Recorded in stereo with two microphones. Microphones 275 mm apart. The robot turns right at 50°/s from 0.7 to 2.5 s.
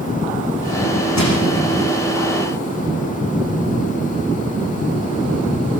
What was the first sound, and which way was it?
Crushing, 75° left (ahead or behind).